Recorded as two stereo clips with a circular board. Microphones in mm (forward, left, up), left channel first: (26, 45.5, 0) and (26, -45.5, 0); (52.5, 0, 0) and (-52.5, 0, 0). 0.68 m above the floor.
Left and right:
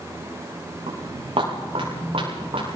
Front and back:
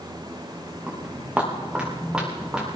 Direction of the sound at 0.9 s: 105° right.